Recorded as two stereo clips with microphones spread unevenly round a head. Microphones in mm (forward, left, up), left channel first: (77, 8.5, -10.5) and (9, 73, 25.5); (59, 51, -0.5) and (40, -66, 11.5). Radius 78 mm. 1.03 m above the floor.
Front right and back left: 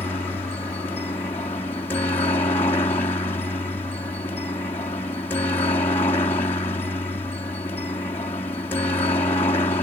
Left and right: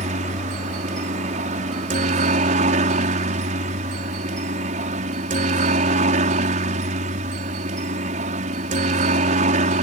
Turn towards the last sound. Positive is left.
turn(degrees=-100)